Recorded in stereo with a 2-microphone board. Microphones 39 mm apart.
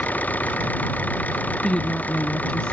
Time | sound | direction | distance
0.0 | an engine running | 45° left (ahead or behind) | ?
1.6 | a woman speaking | 25° left (ahead or behind) | ?